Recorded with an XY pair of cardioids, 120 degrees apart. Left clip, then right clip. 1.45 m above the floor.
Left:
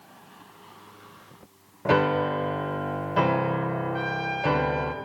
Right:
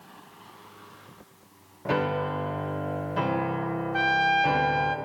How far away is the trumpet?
About 0.5 m.